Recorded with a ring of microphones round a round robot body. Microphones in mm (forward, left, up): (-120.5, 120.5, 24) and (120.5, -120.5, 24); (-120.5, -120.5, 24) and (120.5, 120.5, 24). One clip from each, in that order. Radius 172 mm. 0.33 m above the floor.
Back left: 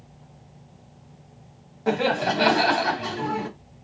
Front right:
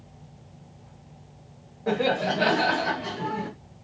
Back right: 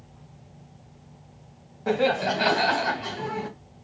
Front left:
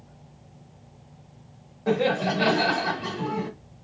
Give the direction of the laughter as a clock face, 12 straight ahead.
7 o'clock.